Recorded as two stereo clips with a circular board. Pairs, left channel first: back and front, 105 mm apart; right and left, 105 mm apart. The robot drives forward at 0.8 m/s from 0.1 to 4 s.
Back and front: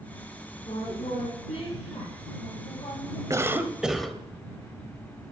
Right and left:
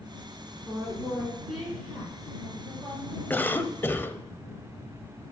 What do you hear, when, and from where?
0.7 s a woman speaking: 175° left, 2.5 m
3.3 s a cough: 30° right, 1.1 m; by 4.2 s 90° right, 0.9 m